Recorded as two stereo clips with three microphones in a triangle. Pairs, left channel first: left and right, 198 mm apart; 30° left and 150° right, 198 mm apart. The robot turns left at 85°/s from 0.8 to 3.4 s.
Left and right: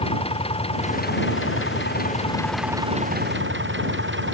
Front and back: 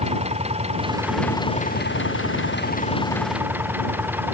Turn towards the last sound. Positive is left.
turn(degrees=-70)